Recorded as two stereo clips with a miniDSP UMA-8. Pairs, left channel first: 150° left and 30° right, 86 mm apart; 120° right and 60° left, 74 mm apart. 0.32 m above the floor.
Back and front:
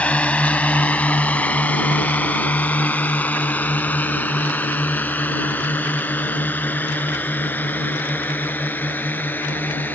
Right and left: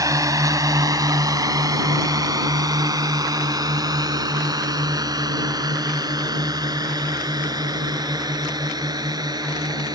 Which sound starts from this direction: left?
A drone, at 0.0 s.